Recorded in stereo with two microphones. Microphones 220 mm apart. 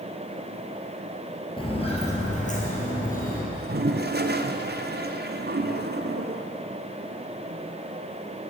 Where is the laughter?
I don't hear laughter.